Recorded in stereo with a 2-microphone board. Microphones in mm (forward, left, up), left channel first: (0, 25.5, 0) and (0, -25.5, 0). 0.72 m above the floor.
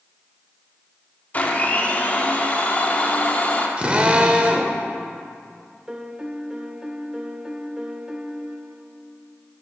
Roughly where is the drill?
Right.